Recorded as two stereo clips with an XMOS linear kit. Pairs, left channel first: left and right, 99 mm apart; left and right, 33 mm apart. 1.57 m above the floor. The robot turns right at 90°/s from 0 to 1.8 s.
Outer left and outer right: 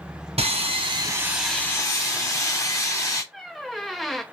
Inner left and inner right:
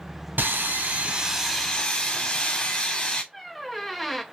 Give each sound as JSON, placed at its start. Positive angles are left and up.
{"t": 0.4, "sound": "sawing", "azimuth_deg": -100, "distance_m": 0.9}
{"t": 3.3, "sound": "a squeak", "side_deg": 0, "distance_m": 0.6}